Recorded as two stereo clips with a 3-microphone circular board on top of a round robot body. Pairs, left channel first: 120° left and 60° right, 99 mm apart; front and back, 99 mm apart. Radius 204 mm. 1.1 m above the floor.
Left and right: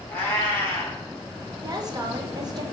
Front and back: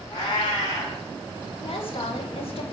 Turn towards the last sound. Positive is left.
turn(degrees=-15)